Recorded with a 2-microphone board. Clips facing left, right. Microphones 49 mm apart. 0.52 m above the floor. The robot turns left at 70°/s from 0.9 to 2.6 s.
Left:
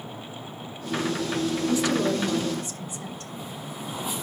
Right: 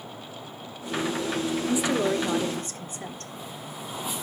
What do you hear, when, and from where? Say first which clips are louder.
1.7 s a woman speaking: even; 20° right, 1.2 m; by 3.3 s 85° right, 1.2 m